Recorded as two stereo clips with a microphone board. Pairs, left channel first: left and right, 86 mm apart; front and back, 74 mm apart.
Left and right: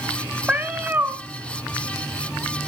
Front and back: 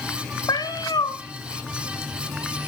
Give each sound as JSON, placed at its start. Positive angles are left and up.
{"t": 0.5, "sound": "a cat meowing", "azimuth_deg": -15, "distance_m": 1.2}